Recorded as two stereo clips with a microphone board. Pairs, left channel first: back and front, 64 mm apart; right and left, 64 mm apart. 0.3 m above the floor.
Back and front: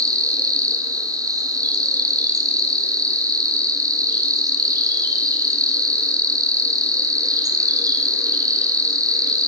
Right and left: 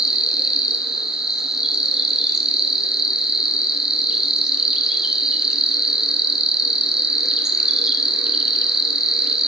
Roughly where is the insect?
Ahead.